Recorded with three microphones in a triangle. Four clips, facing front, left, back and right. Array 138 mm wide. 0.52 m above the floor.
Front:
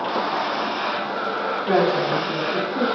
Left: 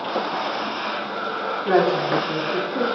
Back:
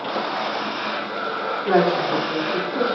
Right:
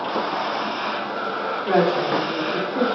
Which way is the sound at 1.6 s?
125° left.